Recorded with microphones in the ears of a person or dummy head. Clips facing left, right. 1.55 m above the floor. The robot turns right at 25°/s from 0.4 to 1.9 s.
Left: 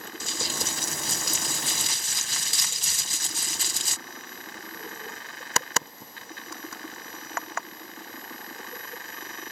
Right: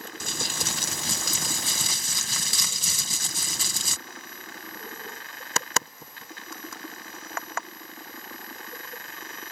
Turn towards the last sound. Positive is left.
turn(degrees=-90)